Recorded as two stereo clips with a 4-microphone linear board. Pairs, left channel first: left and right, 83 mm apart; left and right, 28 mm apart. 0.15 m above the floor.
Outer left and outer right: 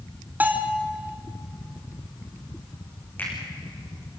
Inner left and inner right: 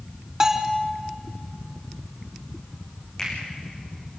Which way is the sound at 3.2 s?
20° left (ahead or behind).